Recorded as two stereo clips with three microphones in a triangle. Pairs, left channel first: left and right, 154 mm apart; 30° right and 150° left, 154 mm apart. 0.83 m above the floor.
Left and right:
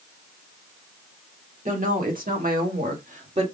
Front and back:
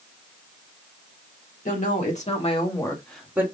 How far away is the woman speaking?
About 1.9 m.